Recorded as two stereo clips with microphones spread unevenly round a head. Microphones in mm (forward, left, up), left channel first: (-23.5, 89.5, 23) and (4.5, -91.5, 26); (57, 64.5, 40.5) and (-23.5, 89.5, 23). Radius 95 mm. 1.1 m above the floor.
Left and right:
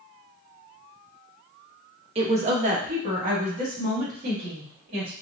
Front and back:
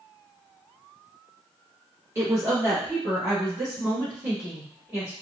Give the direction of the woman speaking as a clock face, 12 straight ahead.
5 o'clock.